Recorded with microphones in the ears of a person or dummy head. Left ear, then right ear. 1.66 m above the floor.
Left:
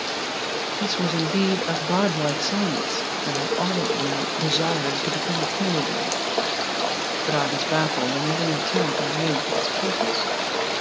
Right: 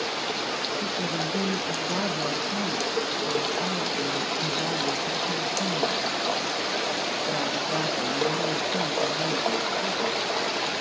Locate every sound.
0.8 s a woman speaking: 70° left (ahead or behind), 0.5 m